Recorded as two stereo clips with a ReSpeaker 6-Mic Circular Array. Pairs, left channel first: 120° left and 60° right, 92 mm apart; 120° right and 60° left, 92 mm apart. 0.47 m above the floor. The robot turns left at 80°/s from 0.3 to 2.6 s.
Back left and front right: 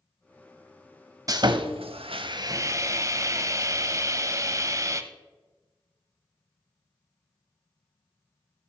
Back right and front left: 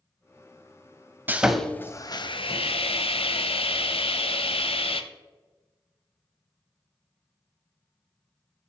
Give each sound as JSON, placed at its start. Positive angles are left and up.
{"t": 1.3, "sound": "sawing", "azimuth_deg": -10, "distance_m": 0.7}